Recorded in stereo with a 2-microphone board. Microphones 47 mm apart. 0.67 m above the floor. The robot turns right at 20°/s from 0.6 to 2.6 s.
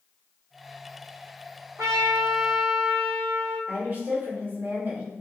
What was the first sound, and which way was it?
A trumpet, 75° right (ahead or behind).